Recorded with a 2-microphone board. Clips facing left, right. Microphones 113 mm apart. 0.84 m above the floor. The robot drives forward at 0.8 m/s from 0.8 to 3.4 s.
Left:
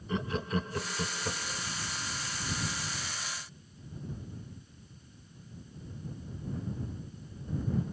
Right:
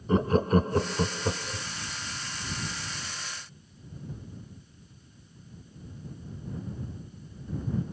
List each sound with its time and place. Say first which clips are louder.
0.1 s laughter: right 10 dB; 45° right (ahead or behind); by 1.7 s 25° right (ahead or behind)